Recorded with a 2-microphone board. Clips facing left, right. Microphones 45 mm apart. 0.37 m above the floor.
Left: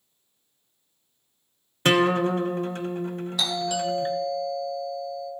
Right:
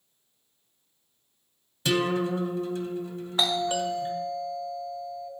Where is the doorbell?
30° right (ahead or behind), 1.9 m.